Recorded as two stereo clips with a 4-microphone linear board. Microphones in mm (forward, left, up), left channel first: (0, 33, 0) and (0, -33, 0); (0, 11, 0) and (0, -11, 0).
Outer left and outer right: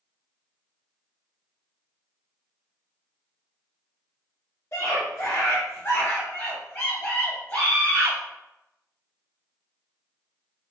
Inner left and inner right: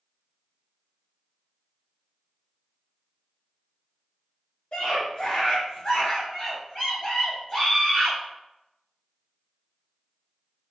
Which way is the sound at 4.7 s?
40° left (ahead or behind).